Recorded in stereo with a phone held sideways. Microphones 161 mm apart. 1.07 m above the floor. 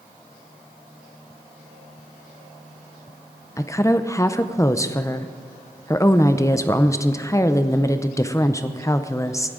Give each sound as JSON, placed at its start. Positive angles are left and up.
{"t": 3.6, "sound": "a woman speaking", "side_deg": 20, "distance_m": 0.5}